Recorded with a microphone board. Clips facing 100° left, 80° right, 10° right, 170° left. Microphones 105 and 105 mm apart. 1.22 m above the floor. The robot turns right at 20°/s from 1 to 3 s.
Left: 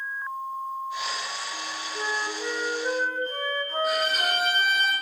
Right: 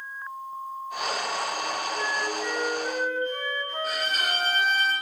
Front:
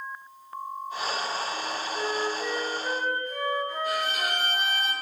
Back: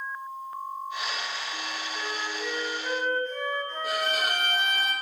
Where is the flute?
45° left, 0.9 m; by 4.8 s 65° left, 0.9 m.